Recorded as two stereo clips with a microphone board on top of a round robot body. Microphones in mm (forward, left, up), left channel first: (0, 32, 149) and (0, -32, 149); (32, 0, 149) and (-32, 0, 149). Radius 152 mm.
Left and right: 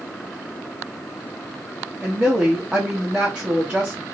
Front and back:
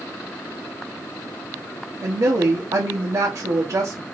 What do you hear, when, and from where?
2.0 s a woman speaking: 165° right, 1.2 m